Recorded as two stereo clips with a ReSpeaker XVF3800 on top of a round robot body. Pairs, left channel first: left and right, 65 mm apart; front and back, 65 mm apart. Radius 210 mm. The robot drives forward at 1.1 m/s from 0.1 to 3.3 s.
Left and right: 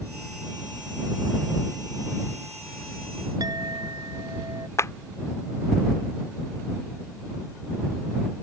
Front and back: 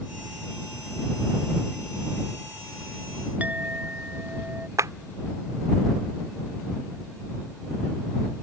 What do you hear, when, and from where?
3.4 s a clink: 115° right
4.8 s a clap: 140° left